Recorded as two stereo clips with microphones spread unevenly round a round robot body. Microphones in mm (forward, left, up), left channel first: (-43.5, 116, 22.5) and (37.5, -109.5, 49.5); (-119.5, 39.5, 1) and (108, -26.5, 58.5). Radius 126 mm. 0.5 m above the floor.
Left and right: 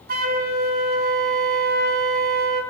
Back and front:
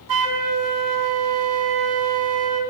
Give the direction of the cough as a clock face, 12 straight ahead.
I don't hear a cough.